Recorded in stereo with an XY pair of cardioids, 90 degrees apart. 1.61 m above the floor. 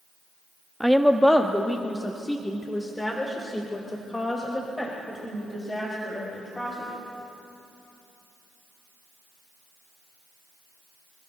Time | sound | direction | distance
0.8 | a woman speaking | straight ahead | 0.6 m